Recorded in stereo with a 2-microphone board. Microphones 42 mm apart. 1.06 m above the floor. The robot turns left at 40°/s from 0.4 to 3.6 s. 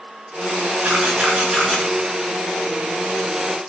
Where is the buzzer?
I don't hear a buzzer.